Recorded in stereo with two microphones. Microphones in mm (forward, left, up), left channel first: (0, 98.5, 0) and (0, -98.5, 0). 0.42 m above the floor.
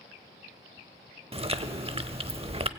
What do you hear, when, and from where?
1.3 s chewing: 30° right (ahead or behind), 0.7 m